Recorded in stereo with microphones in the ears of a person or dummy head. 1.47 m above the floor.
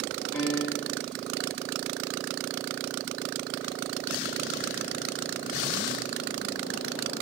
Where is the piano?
15° left (ahead or behind), 5 m.